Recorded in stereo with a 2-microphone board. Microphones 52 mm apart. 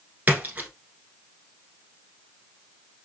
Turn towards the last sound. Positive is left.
turn(degrees=-35)  # may be behind; listen again after turning